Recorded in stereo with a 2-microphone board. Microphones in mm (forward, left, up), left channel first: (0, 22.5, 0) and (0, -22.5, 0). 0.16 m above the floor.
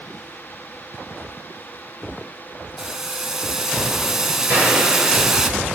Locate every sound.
2.8 s boiling: 10° right (ahead or behind), 0.7 m
4.5 s a gunshot: 50° right (ahead or behind), 9 m